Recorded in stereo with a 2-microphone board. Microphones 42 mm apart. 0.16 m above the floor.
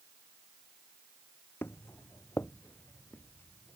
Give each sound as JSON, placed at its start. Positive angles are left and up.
{"t": 1.6, "sound": "footsteps", "side_deg": 80}